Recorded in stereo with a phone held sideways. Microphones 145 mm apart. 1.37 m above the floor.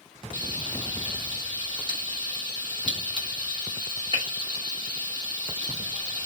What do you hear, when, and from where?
0.3 s frying: 35° right (ahead or behind), 1.1 m